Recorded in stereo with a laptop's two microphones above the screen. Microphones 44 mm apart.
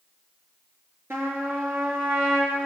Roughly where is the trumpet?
Right.